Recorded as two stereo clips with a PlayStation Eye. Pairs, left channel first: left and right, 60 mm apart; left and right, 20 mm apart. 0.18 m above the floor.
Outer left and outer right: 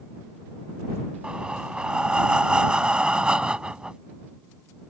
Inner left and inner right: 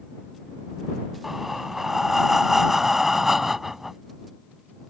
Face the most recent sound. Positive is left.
turn(degrees=-15)  # may be behind; listen again after turning